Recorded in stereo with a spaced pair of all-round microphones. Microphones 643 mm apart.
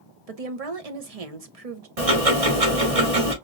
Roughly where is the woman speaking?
Right.